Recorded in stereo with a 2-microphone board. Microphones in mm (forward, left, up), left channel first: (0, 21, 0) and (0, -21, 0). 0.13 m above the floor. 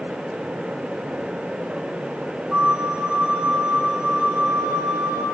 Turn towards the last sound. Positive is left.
turn(degrees=-25)  # may be behind; listen again after turning